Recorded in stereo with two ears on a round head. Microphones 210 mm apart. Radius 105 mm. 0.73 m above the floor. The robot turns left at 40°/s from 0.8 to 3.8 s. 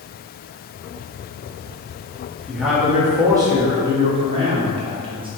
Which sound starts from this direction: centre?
A man speaking, at 2.5 s.